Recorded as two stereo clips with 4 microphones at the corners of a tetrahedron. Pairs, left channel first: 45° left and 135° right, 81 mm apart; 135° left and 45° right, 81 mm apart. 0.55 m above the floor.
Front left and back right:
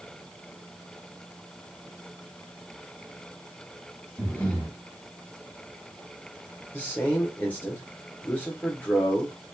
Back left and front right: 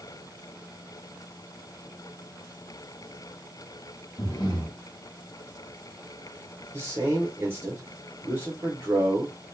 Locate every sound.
4.2 s breathing: 115° left, 1.0 m
6.7 s a man speaking: 10° right, 0.9 m